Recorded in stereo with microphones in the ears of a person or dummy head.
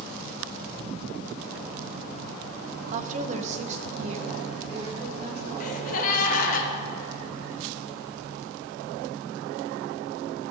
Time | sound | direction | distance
2.9 | a woman speaking | 40° right (ahead or behind) | 0.6 m
5.6 | a gasp | 55° left (ahead or behind) | 1.4 m